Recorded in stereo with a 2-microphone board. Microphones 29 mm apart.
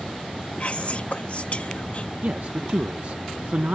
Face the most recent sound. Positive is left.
turn(degrees=-60)  # may be behind; listen again after turning